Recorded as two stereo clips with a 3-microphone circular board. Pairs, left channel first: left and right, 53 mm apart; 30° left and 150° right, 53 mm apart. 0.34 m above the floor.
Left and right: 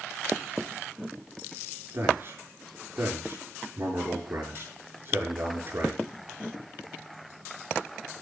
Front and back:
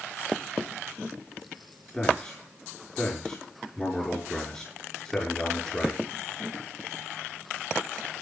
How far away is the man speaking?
About 6.5 m.